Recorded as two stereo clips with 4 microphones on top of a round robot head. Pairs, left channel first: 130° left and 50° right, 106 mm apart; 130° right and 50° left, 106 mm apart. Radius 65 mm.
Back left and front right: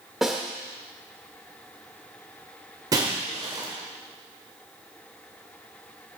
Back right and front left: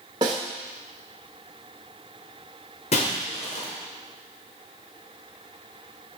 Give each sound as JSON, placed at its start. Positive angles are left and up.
{"t": 0.2, "sound": "a snare drum", "azimuth_deg": 35, "distance_m": 1.1}
{"t": 2.9, "sound": "breaking glass", "azimuth_deg": -105, "distance_m": 2.0}